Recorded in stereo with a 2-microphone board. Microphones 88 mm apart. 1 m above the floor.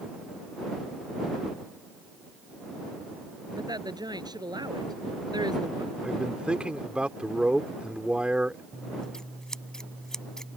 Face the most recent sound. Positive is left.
turn(degrees=10)  # may be behind; listen again after turning